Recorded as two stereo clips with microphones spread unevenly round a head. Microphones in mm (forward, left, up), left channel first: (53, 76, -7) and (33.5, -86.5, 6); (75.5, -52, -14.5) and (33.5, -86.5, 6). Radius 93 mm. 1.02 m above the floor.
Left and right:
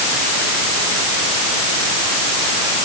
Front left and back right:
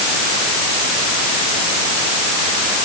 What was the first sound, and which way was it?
Only background noise.